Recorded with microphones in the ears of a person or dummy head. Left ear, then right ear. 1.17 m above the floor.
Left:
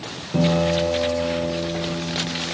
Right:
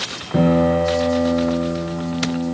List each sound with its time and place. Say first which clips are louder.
0.3 s a piano: right 3 dB; 80° right, 4.5 m